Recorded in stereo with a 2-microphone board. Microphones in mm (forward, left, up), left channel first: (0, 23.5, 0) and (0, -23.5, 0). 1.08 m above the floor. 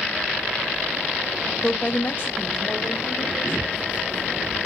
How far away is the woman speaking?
About 0.6 m.